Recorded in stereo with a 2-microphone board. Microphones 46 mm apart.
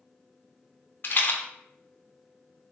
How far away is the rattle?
About 0.5 m.